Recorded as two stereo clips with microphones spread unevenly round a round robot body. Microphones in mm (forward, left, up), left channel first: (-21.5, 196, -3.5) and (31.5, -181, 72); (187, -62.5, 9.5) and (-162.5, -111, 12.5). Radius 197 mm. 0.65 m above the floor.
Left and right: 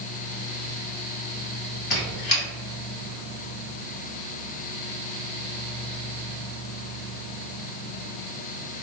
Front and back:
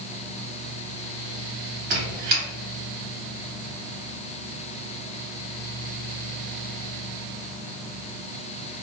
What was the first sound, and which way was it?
A squeak, 170° left.